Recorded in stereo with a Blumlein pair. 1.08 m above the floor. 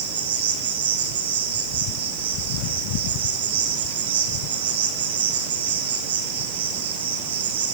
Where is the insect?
60° right, 7 m.